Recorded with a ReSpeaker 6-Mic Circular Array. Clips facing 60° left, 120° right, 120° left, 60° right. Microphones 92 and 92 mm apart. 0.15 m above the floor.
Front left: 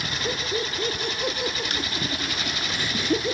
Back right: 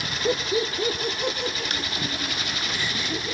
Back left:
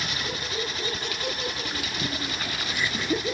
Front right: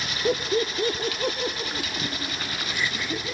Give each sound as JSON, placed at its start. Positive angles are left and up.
{"t": 0.2, "sound": "laughter", "azimuth_deg": -50, "distance_m": 3.0}